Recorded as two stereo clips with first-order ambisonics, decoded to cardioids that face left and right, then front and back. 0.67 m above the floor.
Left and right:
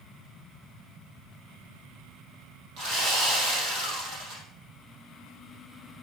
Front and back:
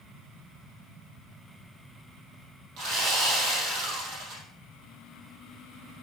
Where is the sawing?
135° right, 4 m.